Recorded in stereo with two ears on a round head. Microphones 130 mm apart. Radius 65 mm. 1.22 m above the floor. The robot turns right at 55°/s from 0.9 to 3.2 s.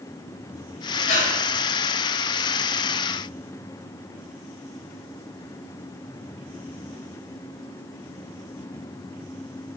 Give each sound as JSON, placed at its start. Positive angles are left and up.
{"t": 1.1, "sound": "breathing", "side_deg": 50, "distance_m": 6.5}